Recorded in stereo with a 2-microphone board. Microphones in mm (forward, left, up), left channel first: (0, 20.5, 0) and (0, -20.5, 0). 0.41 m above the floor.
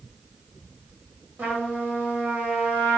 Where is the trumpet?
45° right (ahead or behind), 1.3 m.